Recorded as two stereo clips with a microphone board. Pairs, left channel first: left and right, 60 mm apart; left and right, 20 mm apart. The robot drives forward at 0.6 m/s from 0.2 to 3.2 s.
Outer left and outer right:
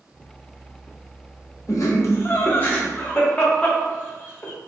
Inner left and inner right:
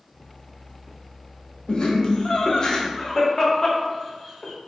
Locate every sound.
1.7 s laughter: 50° left (ahead or behind), 0.5 m; by 4.5 s 25° left (ahead or behind), 1.1 m